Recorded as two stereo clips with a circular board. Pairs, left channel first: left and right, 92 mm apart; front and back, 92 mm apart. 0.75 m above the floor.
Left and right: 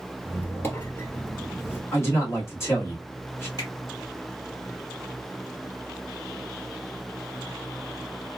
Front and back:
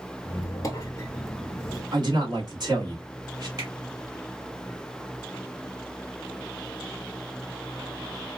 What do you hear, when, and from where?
0.2 s a squeak: 35° left, 0.9 m
1.9 s a man speaking: 145° left, 1.6 m
3.6 s a finger snap: 135° left, 2.0 m